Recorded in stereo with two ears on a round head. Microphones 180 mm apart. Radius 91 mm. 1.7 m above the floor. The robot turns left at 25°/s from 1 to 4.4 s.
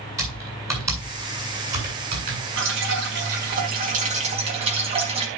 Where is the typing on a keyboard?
15° right (ahead or behind), 8 m; by 2.4 s 50° right (ahead or behind), 8 m.